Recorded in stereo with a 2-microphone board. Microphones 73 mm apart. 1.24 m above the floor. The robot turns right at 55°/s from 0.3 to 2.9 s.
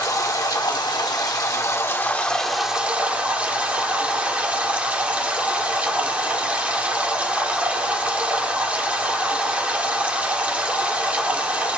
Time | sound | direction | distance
0.0 | running water | 55° left | 1.5 m